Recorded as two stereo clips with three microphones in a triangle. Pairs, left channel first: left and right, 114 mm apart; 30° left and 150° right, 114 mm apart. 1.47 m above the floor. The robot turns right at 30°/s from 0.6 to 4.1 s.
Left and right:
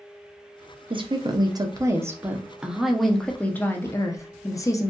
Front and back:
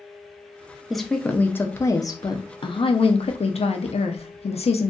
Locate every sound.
0.9 s a woman speaking: 60° right, 0.5 m; by 4.9 s 35° left, 0.5 m